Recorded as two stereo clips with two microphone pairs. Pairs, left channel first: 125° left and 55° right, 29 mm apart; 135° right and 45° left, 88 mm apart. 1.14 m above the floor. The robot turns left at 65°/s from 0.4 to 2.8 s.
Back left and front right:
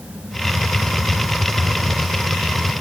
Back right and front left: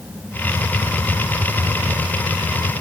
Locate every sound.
Only background noise.